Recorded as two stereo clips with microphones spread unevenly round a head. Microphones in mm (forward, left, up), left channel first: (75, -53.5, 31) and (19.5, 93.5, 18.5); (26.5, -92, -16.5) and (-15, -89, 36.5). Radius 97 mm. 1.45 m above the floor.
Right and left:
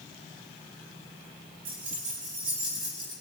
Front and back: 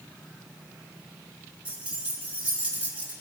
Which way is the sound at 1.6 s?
160° left.